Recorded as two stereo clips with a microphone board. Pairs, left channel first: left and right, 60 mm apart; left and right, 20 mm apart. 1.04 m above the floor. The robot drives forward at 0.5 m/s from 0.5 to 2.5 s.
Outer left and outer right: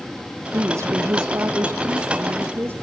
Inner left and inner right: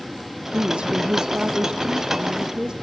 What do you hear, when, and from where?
0.5 s a woman speaking: 60° right (ahead or behind), 1.0 m; by 2.7 s 45° right (ahead or behind), 1.3 m